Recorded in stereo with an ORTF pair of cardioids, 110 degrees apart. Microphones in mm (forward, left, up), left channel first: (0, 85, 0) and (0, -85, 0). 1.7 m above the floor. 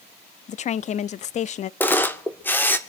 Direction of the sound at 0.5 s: 45° left.